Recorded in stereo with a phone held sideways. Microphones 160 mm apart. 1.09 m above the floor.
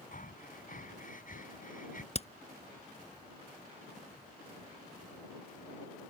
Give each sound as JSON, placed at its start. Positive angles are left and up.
{"t": 0.1, "sound": "breathing", "side_deg": 60}
{"t": 2.1, "sound": "hammering", "side_deg": 40}